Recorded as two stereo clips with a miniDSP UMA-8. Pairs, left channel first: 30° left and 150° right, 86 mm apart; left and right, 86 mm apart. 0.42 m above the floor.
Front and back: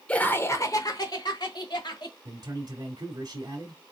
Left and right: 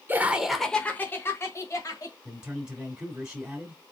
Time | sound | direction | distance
0.1 | laughter | 40° right | 0.9 m
2.2 | a man speaking | 160° right | 1.4 m